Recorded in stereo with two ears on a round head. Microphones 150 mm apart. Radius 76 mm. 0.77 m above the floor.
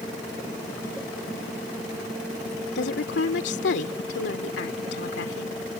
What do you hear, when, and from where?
2.8 s a woman speaking: 70° left (ahead or behind)